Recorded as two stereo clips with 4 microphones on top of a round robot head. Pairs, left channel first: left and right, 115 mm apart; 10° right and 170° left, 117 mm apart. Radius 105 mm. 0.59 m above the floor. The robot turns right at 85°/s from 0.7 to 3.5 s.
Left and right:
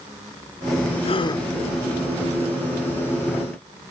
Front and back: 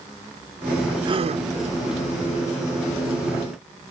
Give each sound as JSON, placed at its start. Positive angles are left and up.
{"t": 1.1, "sound": "a gasp", "azimuth_deg": 120}